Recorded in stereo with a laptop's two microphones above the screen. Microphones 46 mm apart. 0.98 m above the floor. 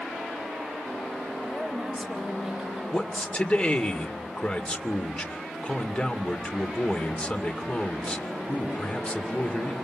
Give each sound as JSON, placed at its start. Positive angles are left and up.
{"t": 1.4, "sound": "a woman speaking", "side_deg": 0, "distance_m": 5.0}
{"t": 2.9, "sound": "a man speaking", "side_deg": 25, "distance_m": 2.5}